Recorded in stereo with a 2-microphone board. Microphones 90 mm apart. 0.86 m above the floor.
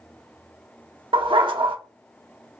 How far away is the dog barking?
About 0.6 m.